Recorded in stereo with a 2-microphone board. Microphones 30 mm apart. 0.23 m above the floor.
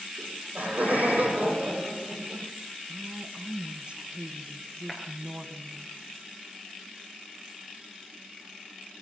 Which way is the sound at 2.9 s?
35° right (ahead or behind).